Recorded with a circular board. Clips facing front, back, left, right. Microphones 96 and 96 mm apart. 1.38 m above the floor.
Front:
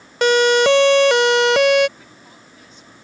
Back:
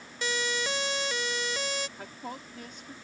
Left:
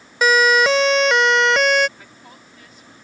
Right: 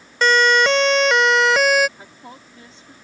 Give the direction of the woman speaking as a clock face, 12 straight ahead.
5 o'clock.